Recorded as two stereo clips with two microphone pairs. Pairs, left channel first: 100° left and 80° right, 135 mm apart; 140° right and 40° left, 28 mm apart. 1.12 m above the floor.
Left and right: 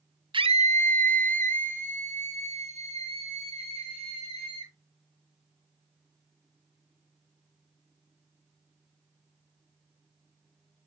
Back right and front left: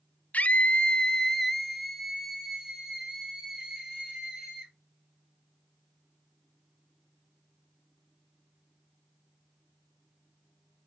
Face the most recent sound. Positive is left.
turn(degrees=-35)